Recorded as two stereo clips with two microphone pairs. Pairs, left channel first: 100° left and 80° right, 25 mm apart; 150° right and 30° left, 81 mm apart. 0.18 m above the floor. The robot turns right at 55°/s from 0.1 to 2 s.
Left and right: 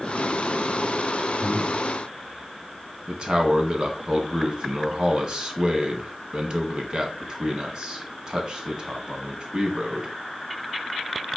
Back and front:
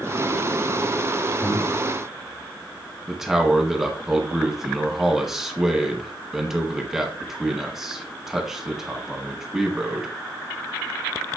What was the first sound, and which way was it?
Breathing, 175° left.